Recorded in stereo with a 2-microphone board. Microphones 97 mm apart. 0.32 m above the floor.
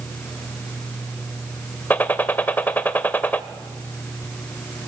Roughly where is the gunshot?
Centre.